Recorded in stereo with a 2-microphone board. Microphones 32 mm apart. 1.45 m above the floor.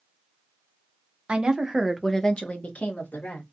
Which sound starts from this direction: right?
A woman speaking, at 1.3 s.